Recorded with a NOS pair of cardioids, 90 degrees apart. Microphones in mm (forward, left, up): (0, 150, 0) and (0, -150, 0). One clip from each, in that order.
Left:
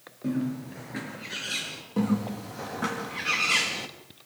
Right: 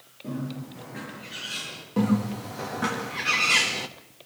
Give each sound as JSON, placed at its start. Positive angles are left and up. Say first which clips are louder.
{"t": 0.2, "sound": "a bird", "louder": "left 4 dB", "azimuth_deg": 55, "distance_m": 7.5}
{"t": 2.0, "sound": "a bird", "louder": "right 3 dB", "azimuth_deg": -10, "distance_m": 1.8}